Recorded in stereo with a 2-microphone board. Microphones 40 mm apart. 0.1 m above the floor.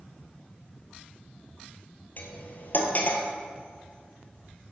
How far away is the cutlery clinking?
About 1.5 m.